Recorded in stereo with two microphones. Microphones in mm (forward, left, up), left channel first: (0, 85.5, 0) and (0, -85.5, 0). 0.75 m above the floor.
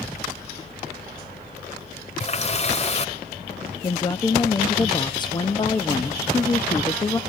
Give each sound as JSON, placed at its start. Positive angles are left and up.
{"t": 2.2, "sound": "a running tap", "side_deg": 40, "distance_m": 1.9}
{"t": 3.8, "sound": "a woman speaking", "side_deg": 25, "distance_m": 0.7}